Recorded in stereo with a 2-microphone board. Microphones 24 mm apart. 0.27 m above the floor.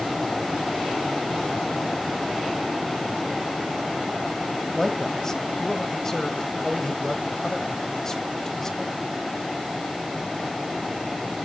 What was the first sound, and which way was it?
A man speaking, 20° left (ahead or behind).